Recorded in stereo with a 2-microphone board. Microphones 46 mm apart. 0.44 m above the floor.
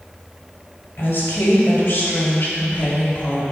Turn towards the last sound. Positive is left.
turn(degrees=40)  # may be behind; listen again after turning